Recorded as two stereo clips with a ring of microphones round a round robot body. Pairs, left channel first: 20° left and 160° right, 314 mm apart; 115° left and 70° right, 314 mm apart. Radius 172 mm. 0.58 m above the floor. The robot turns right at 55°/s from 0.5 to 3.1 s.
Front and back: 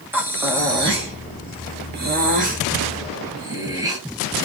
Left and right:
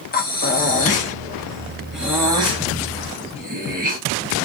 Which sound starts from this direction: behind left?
Breathing, at 0.1 s.